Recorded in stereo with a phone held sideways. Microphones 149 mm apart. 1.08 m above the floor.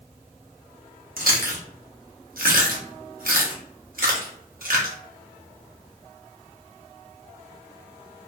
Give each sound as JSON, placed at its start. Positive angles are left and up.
{"t": 1.2, "sound": "chewing", "side_deg": -75, "distance_m": 0.9}